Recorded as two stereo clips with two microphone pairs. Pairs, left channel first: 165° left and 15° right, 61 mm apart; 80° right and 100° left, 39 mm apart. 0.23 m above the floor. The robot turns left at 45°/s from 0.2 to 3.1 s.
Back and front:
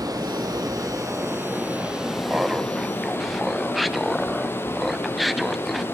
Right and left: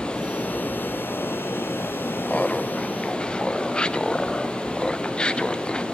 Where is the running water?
15° right, 4 m; by 5.9 s 145° right, 4 m.